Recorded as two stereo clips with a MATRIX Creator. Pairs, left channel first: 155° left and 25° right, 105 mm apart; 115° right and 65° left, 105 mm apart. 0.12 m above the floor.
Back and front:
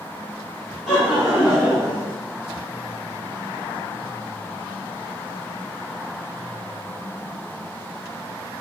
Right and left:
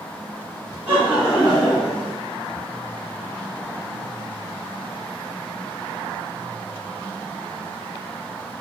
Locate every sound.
0.9 s laughter: 80° left, 1.1 m; by 2.1 s 40° right, 1.1 m